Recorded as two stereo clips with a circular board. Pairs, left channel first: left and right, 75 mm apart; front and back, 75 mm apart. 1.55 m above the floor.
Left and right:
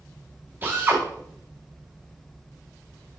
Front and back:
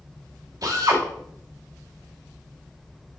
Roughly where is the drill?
Behind right.